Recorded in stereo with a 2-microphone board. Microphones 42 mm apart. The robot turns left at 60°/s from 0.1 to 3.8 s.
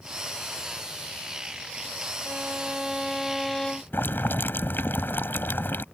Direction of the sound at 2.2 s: 115° right.